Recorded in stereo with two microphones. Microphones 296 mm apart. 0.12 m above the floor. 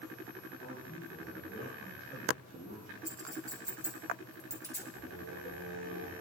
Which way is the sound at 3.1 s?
10° right (ahead or behind).